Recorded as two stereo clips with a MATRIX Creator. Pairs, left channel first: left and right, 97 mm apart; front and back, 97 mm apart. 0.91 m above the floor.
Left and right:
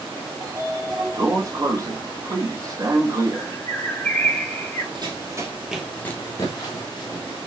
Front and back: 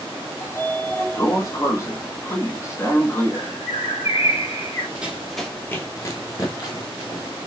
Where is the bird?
20° left, 2.5 m.